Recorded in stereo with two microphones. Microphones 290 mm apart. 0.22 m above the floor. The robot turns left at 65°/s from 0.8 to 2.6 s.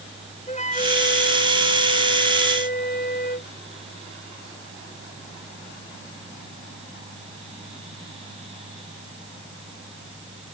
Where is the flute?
155° left; by 3.5 s 35° left.